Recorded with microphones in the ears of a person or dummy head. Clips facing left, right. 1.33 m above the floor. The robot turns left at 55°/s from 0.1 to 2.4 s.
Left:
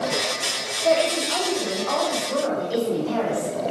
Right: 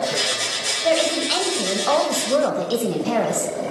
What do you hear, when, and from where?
0.8 s a woman speaking: 10° right, 1.4 m; by 3.5 s 100° right, 1.4 m